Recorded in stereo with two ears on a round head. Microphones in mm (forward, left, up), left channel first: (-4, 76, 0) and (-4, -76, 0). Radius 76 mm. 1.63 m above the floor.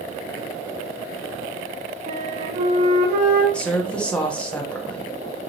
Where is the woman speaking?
5° left (ahead or behind), 0.6 m.